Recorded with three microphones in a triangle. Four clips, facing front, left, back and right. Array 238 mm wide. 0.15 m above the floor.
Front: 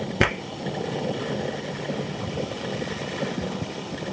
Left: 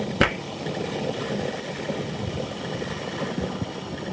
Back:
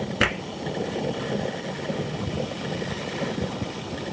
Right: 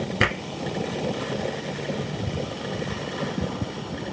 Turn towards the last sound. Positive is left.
turn(degrees=50)